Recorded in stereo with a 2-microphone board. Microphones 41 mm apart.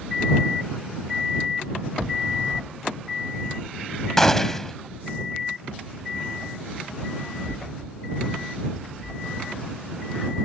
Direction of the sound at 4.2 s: 10° left (ahead or behind).